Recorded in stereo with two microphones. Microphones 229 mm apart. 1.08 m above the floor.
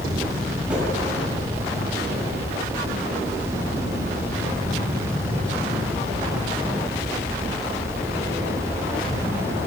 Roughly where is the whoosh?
Centre.